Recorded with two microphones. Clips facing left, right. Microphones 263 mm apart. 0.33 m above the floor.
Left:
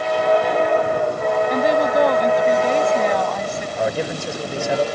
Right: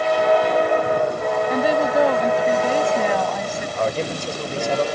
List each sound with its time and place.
1.5 s a woman speaking: 5° right (ahead or behind)
3.8 s a man speaking: 10° left (ahead or behind)